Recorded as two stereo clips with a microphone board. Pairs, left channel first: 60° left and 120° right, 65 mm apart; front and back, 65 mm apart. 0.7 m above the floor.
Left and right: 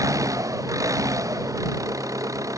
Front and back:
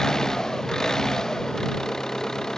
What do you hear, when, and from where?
0.0 s an engine running: 80° right